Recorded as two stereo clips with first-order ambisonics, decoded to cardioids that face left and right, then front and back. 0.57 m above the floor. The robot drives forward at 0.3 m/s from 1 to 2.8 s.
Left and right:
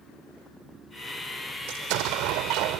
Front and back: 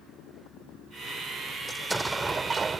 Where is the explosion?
95° right; by 2.8 s 110° right.